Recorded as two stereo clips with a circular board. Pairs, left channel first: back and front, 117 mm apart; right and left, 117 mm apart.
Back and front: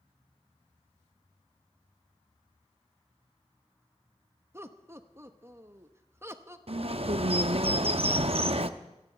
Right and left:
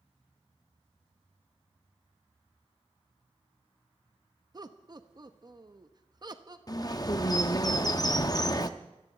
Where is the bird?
35° right, 0.6 m.